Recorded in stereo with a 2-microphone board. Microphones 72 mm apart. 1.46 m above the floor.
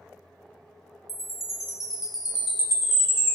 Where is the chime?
5° right (ahead or behind), 0.5 m.